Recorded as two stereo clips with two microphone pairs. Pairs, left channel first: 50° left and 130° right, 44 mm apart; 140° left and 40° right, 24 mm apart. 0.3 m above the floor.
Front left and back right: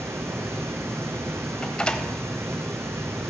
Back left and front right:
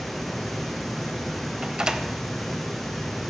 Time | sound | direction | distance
0.0 | running water | 135° right | 1.4 m
1.6 | a door slam | 5° right | 0.8 m